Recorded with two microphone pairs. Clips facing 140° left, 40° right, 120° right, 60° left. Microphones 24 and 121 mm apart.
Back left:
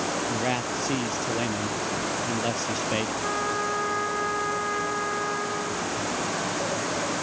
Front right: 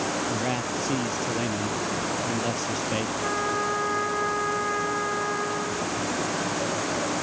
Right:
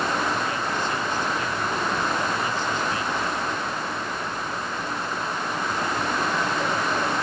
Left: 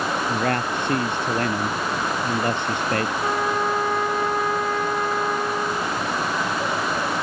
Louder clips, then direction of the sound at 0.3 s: Back left 1 dB, left 3 dB; 60° left.